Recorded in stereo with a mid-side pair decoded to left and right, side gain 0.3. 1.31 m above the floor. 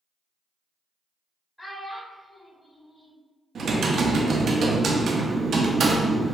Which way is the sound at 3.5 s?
70° right.